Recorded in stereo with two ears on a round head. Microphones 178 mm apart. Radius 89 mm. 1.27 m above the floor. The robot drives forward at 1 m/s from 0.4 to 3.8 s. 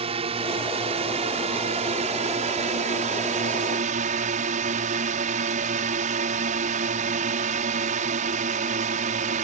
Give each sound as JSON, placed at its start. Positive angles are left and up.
{"t": 0.0, "sound": "a drone", "side_deg": -30}